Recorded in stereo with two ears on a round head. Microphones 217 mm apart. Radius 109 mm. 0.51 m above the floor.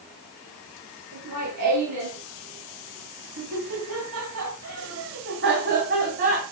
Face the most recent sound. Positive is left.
turn(degrees=-35)  # may be behind; listen again after turning